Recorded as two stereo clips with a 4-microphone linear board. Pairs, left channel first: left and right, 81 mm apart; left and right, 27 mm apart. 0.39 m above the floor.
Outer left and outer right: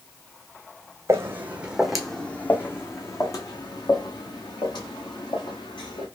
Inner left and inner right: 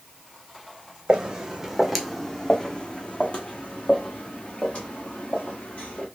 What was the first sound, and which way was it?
Footsteps, 35° right (ahead or behind).